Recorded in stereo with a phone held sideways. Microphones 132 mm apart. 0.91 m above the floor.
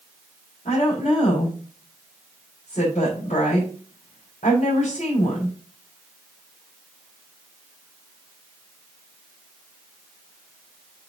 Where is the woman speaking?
70° left (ahead or behind), 3.5 m.